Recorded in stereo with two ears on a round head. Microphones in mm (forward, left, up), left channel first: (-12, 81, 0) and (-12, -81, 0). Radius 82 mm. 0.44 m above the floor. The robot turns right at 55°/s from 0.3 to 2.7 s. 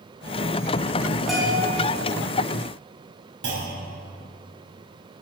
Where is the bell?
Centre (ahead or behind), 3 m; by 1.7 s 25° right (ahead or behind), 3 m.